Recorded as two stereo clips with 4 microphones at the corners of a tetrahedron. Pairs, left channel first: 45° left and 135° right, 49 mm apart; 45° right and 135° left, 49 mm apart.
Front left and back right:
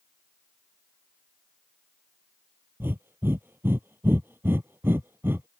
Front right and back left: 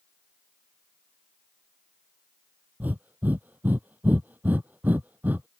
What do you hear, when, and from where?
2.8 s breathing: 175° right